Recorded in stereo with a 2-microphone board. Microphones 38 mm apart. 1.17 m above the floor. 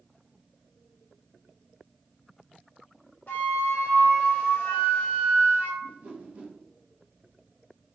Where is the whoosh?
35° right (ahead or behind), 0.9 m.